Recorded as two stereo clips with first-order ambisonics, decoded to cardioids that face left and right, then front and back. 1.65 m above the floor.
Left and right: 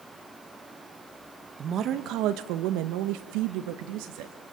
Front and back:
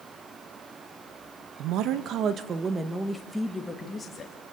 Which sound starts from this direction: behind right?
A woman speaking, at 1.6 s.